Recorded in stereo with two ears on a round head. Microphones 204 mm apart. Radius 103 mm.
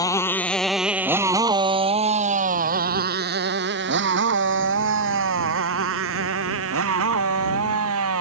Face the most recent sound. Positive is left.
turn(degrees=-75)  # may be behind; listen again after turning